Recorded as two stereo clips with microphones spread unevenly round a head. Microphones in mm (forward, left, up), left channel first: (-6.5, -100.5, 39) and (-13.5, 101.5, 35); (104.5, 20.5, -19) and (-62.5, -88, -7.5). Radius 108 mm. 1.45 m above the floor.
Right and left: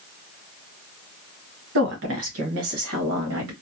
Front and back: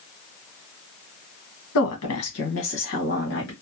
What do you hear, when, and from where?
1.8 s a woman speaking: 55° left, 1.3 m; by 3.5 s 75° left, 2 m